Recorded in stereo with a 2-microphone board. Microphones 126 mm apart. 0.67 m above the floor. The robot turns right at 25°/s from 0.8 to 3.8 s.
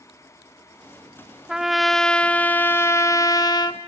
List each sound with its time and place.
1.5 s a trumpet: 5° right, 0.5 m; by 3.8 s 50° left, 0.5 m